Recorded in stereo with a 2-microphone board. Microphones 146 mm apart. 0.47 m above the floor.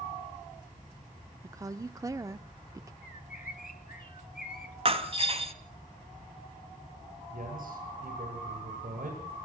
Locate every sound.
1.4 s a woman speaking: 20° right (ahead or behind), 0.7 m
3.0 s a bird: 75° left (ahead or behind), 1.7 m
4.8 s breaking glass: 40° right (ahead or behind), 1.7 m
7.3 s a man speaking: 75° right (ahead or behind), 10 m